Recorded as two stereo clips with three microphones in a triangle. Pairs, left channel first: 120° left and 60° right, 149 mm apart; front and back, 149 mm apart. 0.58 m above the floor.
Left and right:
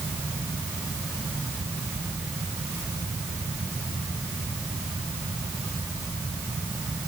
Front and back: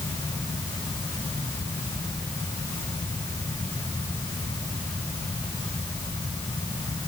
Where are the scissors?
No scissors in this recording.